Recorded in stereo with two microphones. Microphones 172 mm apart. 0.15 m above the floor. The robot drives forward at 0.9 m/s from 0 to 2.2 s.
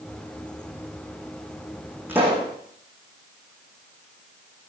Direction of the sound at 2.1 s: 10° right (ahead or behind).